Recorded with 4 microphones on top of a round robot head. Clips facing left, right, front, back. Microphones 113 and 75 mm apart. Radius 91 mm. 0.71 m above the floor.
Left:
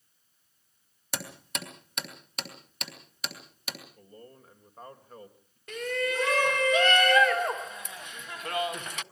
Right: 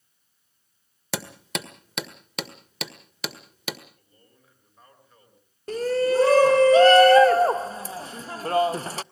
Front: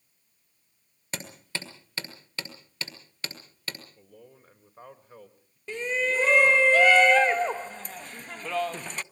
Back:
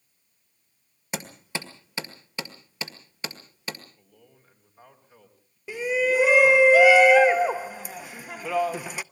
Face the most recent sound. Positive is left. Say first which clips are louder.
# right 9 dB, back 4 dB
turn(degrees=-105)